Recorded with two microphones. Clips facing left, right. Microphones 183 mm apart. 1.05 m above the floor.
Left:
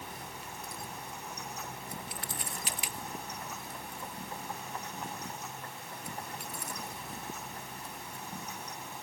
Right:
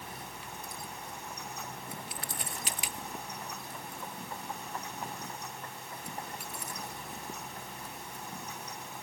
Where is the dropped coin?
No dropped coin in this recording.